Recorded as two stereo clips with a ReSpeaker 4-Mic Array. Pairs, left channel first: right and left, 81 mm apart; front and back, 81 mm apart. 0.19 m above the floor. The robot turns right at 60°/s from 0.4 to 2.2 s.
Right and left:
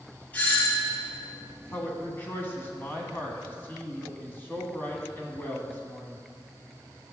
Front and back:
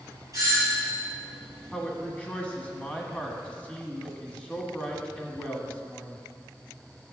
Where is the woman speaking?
85° right, 1.6 m; by 6.2 s 55° right, 1.6 m.